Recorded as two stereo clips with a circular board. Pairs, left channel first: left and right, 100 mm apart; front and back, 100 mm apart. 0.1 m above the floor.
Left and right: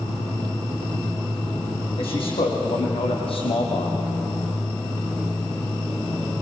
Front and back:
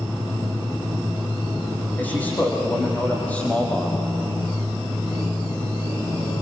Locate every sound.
2.0 s a man speaking: 70° left, 4.5 m; by 4.1 s 75° left, 3 m